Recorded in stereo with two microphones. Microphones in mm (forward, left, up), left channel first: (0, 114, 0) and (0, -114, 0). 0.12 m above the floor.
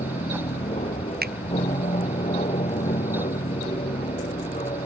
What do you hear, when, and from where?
0.0 s an aircraft: 30° left (ahead or behind); by 4.9 s 25° left (ahead or behind)
1.2 s a finger snap: 45° right (ahead or behind)